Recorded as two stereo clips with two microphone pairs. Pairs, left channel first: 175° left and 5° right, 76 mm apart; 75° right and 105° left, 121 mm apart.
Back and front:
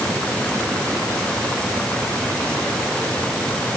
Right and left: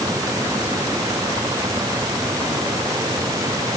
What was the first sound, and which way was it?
Only background noise.